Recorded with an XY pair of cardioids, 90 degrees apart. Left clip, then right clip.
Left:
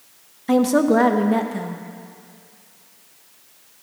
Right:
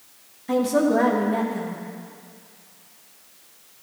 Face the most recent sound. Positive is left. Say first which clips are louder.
# left 3 dB
turn(degrees=55)